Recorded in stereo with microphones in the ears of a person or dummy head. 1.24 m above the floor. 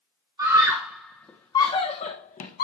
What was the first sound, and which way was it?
A scream, 15° right (ahead or behind).